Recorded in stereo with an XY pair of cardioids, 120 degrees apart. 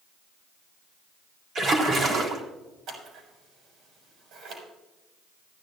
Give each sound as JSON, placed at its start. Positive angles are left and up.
{"t": 1.6, "sound": "a splash", "azimuth_deg": -45, "distance_m": 3.5}
{"t": 2.9, "sound": "scissors", "azimuth_deg": -70, "distance_m": 6.0}